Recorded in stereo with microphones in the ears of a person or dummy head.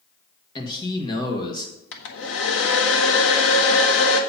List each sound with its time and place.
0.6 s a man speaking: 30° left (ahead or behind), 1.8 m
1.9 s a hair dryer: 70° left (ahead or behind), 1.3 m